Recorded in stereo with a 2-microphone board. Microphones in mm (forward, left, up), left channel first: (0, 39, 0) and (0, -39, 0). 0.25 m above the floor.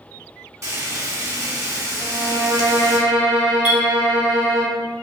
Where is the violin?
20° right (ahead or behind), 1.7 m.